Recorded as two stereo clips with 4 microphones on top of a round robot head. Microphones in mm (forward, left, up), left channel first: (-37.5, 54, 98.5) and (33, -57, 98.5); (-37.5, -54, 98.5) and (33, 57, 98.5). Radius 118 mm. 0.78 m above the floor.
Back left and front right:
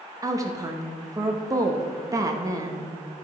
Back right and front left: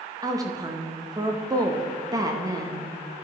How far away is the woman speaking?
About 0.8 m.